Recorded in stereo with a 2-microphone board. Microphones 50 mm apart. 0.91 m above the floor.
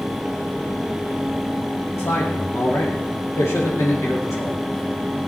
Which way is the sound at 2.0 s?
70° left (ahead or behind).